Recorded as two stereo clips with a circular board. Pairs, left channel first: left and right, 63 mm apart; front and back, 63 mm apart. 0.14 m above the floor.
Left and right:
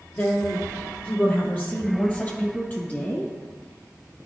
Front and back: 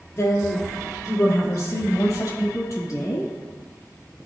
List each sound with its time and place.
0.2 s a woman speaking: 40° left, 2.5 m; by 3.3 s 25° left, 4 m